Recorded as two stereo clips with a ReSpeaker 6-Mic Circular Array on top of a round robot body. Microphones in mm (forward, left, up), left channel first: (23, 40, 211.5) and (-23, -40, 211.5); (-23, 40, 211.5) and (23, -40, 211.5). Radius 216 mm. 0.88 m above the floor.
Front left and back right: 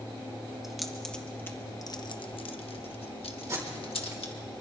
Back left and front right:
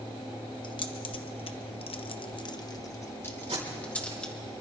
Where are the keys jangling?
155° left, 1.2 m; by 4.3 s 40° left, 1.8 m.